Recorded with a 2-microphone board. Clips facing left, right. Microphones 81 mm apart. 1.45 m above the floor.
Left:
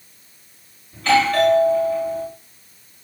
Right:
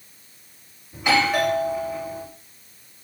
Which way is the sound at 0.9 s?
15° right (ahead or behind).